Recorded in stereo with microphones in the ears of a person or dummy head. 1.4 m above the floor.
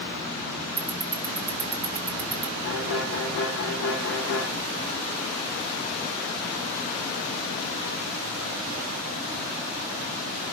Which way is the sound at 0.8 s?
10° right (ahead or behind).